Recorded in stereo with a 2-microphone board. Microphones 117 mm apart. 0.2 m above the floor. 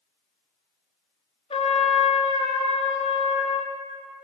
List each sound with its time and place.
1.5 s a trumpet: 70° left (ahead or behind), 0.6 m